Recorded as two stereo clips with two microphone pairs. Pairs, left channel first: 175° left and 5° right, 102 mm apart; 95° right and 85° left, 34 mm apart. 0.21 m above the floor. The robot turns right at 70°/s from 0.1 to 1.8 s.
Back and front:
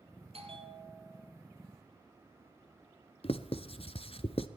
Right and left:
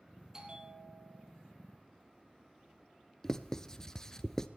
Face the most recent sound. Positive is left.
turn(degrees=-170)